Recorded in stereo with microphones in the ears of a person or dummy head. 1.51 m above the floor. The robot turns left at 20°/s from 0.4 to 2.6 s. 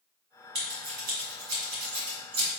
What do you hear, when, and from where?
0.6 s scissors: 35° right (ahead or behind), 1.9 m; by 2.5 s 60° right (ahead or behind), 1.9 m